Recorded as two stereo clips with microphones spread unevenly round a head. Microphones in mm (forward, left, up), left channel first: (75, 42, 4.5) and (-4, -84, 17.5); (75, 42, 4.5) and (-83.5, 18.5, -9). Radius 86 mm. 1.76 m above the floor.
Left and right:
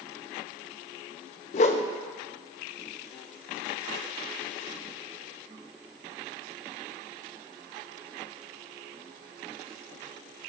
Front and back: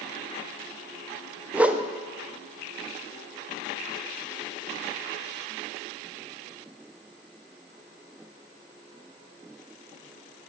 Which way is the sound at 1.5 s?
105° left.